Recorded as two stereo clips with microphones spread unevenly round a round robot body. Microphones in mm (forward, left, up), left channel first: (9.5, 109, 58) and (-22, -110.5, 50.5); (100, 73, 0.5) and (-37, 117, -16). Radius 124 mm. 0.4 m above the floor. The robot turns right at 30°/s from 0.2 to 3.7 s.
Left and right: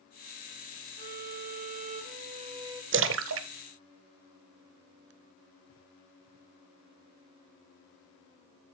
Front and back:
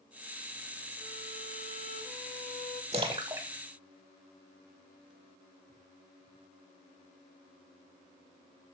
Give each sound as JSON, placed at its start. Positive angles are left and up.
{"t": 1.0, "sound": "a violin", "azimuth_deg": -90, "distance_m": 1.1}
{"t": 2.9, "sound": "a splash", "azimuth_deg": -135, "distance_m": 0.7}